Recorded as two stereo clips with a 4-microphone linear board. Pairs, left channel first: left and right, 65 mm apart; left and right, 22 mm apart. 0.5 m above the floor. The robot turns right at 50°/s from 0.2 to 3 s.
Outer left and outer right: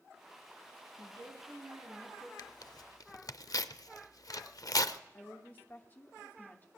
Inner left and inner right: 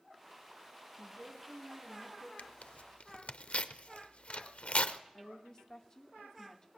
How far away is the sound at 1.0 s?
About 6.5 m.